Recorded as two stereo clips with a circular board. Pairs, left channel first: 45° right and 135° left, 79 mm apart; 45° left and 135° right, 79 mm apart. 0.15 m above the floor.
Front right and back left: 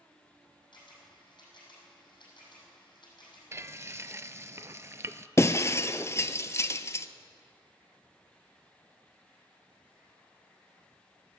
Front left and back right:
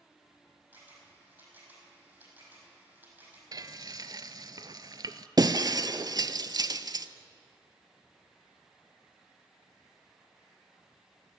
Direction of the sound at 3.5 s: 170° right.